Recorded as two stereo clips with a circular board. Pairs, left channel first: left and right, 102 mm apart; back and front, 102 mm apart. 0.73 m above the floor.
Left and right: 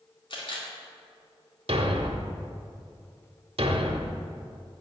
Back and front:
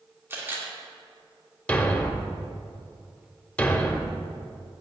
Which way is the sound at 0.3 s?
65° left.